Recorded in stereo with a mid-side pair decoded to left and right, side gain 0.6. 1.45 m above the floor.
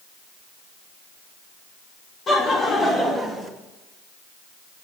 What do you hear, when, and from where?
2.3 s laughter: 35° left, 2.5 m; by 3.5 s 5° left, 1.9 m